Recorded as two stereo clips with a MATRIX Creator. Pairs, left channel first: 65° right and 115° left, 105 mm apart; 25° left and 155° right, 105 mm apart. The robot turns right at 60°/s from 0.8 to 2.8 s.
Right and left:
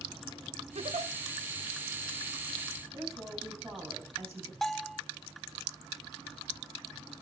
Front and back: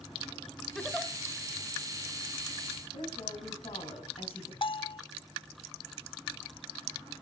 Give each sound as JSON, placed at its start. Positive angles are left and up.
{"t": 0.8, "sound": "a giggle", "azimuth_deg": 105, "distance_m": 1.3}
{"t": 2.9, "sound": "a woman speaking", "azimuth_deg": 45, "distance_m": 4.0}
{"t": 4.6, "sound": "a bell", "azimuth_deg": 20, "distance_m": 0.5}